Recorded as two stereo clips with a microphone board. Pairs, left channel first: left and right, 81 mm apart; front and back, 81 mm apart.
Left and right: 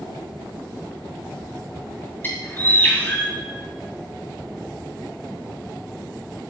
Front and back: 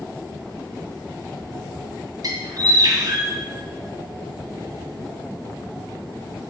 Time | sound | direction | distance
2.2 | a bird | 150° left | 2.5 m